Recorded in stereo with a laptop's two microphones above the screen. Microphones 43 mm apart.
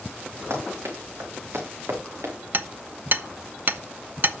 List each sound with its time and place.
0.5 s running footsteps: 75° right (ahead or behind), 5 m; by 2.3 s 70° right (ahead or behind), 4.5 m
2.5 s hammering: 50° right (ahead or behind), 0.6 m